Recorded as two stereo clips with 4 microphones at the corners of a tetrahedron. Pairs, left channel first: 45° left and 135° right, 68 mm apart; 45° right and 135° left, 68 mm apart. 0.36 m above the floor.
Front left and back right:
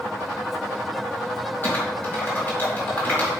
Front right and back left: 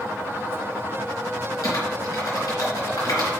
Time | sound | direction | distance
1.6 | typing on a keyboard | 15° right | 3.5 m